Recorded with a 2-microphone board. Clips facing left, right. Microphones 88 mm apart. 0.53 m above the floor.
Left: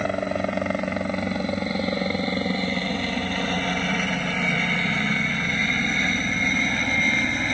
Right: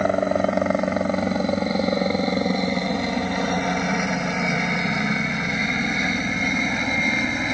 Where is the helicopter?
20° right (ahead or behind); by 7.5 s 10° right (ahead or behind).